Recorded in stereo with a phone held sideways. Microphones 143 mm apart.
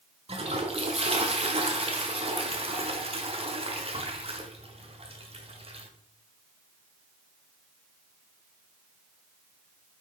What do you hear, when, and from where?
0.3 s a toilet flushing: 45° right (ahead or behind), 1.1 m